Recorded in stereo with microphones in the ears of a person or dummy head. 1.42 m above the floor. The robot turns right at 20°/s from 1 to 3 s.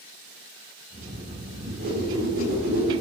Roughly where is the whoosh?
Right.